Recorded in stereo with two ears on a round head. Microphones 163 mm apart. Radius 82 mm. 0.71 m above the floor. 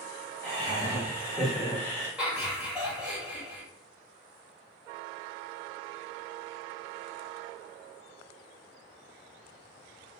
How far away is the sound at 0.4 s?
About 1.4 m.